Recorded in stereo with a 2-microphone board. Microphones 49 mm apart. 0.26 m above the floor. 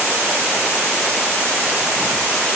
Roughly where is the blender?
No blender in this recording.